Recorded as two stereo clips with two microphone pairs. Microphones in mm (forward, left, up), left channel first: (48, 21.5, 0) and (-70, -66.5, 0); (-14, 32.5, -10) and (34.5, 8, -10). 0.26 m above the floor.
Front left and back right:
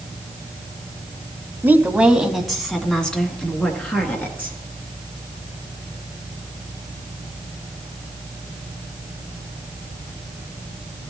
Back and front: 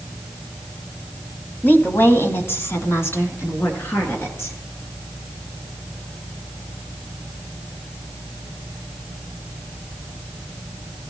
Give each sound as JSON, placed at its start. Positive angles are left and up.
{"t": 1.6, "sound": "a woman speaking", "azimuth_deg": 150, "distance_m": 1.4}